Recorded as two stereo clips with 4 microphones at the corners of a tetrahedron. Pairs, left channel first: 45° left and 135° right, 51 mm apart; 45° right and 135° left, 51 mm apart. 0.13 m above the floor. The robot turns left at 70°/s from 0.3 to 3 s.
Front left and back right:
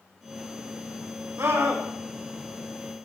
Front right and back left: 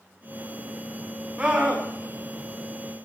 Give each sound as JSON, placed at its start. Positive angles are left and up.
{"t": 1.4, "sound": "a scream", "azimuth_deg": -155, "distance_m": 9.0}